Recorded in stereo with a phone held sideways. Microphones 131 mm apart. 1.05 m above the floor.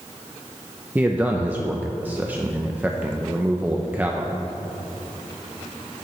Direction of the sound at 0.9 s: 10° right (ahead or behind).